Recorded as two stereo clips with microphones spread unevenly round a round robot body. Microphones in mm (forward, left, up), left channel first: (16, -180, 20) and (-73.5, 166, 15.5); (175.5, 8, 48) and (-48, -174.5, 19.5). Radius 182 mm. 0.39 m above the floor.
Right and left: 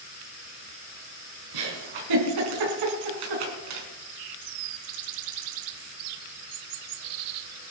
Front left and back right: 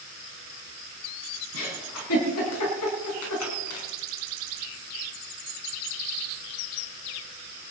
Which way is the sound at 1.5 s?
85° left.